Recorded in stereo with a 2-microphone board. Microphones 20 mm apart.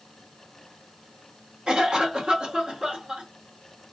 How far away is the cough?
About 1.4 m.